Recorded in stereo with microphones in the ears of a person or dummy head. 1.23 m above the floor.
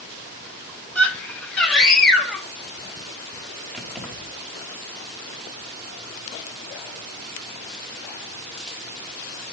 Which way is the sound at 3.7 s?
5° right (ahead or behind).